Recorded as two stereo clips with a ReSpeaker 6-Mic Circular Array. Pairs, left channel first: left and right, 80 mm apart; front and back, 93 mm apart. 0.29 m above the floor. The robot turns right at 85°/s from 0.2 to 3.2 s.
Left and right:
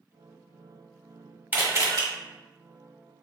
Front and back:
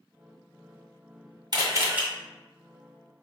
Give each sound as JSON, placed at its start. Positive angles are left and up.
{"t": 1.5, "sound": "a camera shutter", "azimuth_deg": -155, "distance_m": 1.6}